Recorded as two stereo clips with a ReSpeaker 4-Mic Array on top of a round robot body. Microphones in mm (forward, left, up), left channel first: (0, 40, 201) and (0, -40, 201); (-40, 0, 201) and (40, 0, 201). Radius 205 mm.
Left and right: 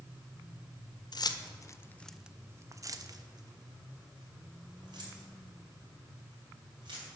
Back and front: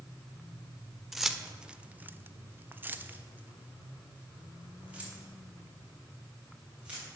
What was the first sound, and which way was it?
Keys jangling, 90° left.